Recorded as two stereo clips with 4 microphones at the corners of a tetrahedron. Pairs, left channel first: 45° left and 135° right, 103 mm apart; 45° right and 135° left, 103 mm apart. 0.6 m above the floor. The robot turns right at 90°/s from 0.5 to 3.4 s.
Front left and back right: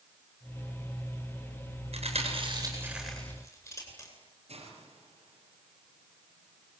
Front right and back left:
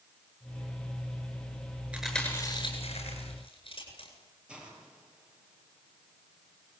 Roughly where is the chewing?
Behind right.